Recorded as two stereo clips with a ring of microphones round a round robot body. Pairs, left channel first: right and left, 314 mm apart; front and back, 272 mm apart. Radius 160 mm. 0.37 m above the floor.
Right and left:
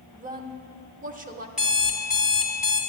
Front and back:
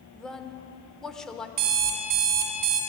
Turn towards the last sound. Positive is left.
turn(degrees=180)